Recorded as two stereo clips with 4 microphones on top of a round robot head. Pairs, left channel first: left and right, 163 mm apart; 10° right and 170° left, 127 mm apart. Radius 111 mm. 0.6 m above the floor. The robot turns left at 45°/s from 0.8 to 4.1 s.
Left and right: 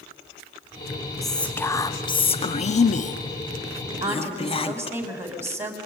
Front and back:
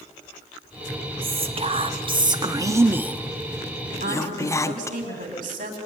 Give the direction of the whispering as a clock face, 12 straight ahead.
6 o'clock.